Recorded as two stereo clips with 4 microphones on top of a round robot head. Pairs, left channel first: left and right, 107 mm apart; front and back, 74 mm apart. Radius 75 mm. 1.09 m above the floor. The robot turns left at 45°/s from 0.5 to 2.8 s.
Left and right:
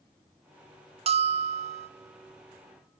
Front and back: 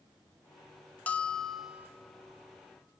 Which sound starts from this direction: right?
A bell, at 1.1 s.